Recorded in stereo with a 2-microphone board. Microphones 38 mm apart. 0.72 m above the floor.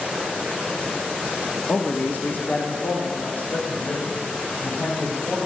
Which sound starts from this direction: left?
A man speaking, at 1.7 s.